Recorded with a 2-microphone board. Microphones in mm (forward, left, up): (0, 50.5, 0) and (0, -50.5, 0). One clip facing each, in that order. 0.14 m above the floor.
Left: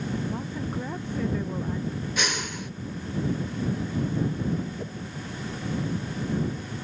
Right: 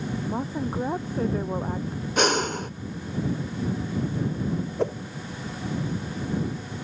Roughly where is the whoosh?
Right.